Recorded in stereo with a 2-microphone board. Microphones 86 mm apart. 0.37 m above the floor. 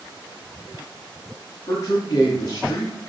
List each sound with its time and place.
1.7 s a man speaking: 30° left (ahead or behind), 5 m